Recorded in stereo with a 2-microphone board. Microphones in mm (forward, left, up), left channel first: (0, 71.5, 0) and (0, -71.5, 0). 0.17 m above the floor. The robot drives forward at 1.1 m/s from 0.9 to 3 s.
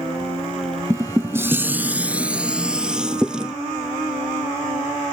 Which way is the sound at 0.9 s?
20° right (ahead or behind).